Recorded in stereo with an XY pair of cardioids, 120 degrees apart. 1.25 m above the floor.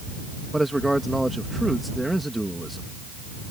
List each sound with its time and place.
0.5 s a man speaking: 5° right